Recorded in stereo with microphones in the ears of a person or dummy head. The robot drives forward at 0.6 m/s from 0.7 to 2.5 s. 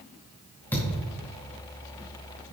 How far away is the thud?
About 2 m.